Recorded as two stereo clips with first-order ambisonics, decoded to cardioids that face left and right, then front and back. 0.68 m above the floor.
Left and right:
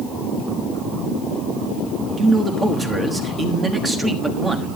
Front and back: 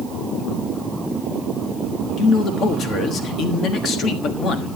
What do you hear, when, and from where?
2.2 s a man speaking: 20° right, 1.3 m